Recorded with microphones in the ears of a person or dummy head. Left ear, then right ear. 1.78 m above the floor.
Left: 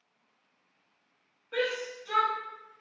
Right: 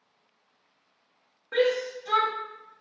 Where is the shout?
55° right (ahead or behind), 0.6 m.